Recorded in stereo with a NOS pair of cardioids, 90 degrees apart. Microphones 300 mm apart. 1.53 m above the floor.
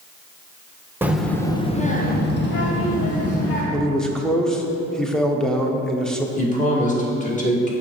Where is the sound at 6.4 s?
25° left, 1.7 m.